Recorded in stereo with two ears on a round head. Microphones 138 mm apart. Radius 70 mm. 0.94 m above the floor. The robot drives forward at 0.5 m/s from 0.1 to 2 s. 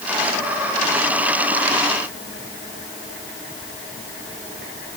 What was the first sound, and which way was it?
Only background noise.